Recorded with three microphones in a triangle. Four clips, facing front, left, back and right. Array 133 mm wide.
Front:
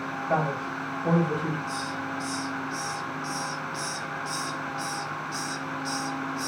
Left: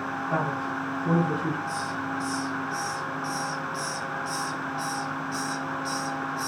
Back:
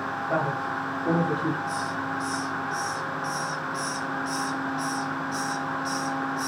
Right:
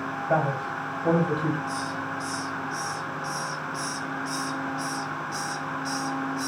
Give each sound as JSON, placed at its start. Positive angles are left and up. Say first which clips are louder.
{"t": 0.3, "sound": "a man speaking", "louder": "right 4 dB, front 1 dB", "azimuth_deg": -75, "distance_m": 2.5}
{"t": 1.7, "sound": "a hiss", "louder": "even, back 3 dB", "azimuth_deg": -35, "distance_m": 0.9}